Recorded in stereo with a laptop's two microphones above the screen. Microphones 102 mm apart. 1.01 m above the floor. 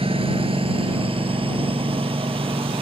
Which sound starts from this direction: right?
A lawn mower, at 0.0 s.